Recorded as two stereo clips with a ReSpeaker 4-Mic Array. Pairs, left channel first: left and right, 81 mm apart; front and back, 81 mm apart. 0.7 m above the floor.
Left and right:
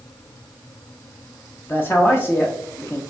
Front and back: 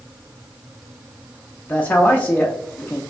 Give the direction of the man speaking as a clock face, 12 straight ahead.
10 o'clock.